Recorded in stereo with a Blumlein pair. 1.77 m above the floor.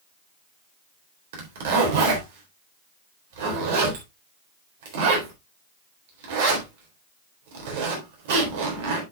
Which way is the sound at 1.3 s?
50° right.